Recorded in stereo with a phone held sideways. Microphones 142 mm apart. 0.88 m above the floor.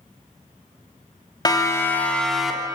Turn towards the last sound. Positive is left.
turn(degrees=-10)  # may be behind; listen again after turning